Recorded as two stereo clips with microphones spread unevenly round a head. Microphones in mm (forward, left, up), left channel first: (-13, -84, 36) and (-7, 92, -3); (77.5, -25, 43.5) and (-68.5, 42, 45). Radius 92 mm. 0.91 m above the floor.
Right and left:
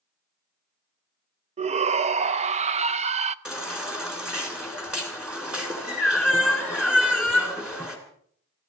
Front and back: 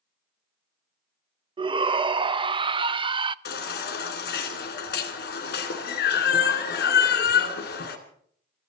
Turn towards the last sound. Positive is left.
turn(degrees=0)